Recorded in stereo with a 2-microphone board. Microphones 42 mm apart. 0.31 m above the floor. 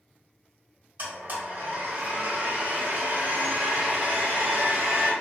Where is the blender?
40° right (ahead or behind), 1.5 m.